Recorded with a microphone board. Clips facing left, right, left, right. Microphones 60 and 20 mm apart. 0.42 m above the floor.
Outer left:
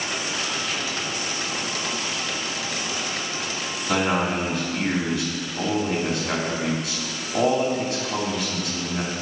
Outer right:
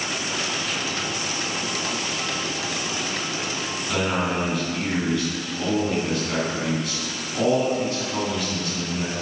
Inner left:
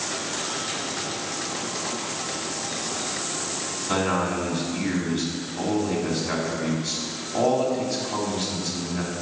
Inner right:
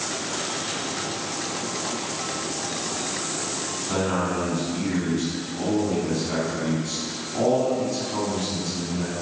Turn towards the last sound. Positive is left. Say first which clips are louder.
# outer left 2 dB, inner left 1 dB
turn(degrees=70)  # may be behind; listen again after turning